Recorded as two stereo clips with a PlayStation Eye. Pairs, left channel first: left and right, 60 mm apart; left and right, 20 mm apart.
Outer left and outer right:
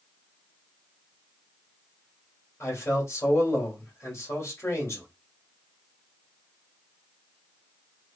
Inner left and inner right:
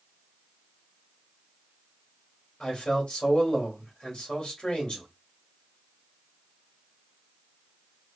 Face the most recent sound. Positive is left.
turn(degrees=45)  # may be behind; listen again after turning